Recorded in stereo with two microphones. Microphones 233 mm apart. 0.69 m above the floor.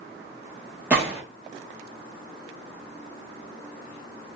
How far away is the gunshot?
About 0.9 m.